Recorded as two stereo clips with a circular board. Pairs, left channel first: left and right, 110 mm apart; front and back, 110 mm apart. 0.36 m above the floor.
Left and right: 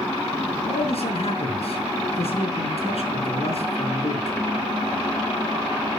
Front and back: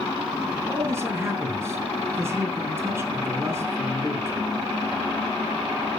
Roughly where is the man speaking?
Behind left.